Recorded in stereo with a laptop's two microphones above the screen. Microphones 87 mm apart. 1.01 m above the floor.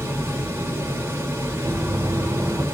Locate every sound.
0.0 s a fan: 35° right (ahead or behind), 0.8 m
1.6 s knocking: 40° right (ahead or behind), 0.8 m